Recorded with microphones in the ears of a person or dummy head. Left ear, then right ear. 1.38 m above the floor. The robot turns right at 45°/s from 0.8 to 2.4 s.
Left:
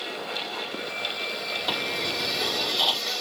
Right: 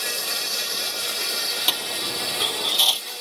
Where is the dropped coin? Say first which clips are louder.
Right 2 dB; 75° right (ahead or behind); by 3.0 s 65° right (ahead or behind).